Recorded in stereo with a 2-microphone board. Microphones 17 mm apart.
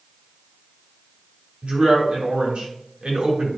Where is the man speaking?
90° right, 3 m.